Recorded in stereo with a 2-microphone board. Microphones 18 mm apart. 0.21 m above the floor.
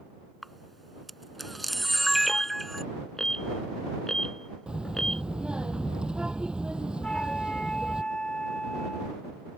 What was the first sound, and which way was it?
A camera shutter, 5° left (ahead or behind).